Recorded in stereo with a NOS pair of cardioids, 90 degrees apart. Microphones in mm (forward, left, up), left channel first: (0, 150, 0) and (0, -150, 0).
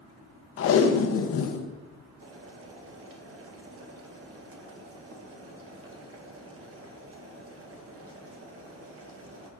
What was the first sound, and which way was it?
Tape being pulled, 50° left.